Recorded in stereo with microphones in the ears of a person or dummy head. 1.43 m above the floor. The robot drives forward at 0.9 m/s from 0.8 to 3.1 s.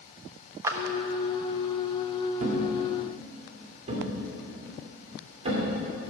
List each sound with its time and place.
0.6 s a clap: 20° right (ahead or behind), 0.9 m
2.4 s a thud: 50° right (ahead or behind), 1.6 m; by 5.7 s 35° right (ahead or behind), 2 m